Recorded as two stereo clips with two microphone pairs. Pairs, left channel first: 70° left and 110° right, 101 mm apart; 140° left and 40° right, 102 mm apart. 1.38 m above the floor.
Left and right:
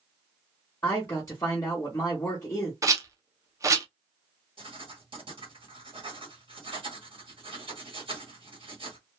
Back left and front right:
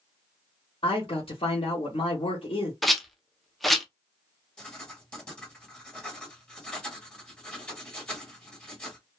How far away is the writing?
About 1.8 m.